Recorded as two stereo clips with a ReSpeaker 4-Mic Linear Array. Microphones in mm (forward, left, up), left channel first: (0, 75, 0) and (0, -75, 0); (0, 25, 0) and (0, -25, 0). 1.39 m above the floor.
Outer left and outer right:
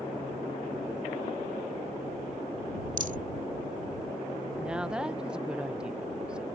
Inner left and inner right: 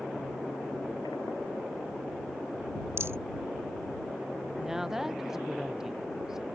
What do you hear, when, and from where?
3.0 s a rattle: 60° right (ahead or behind)
4.6 s a woman speaking: 5° right (ahead or behind)